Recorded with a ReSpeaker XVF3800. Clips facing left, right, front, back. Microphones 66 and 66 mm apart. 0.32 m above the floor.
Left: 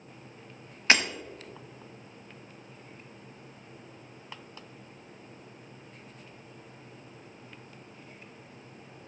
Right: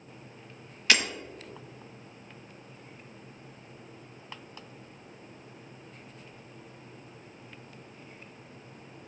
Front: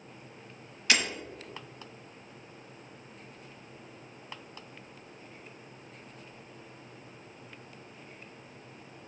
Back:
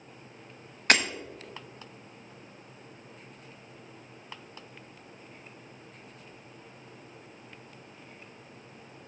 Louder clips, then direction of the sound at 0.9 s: Left 2 dB, back 4 dB; 145° left.